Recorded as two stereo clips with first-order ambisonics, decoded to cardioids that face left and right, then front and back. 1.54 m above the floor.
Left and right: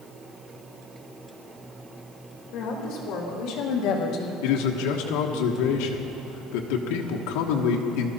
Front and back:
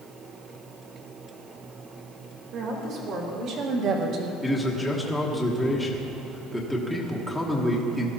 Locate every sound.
2.5 s a woman speaking: 130° left, 3.5 m
4.4 s a man speaking: 90° left, 1.3 m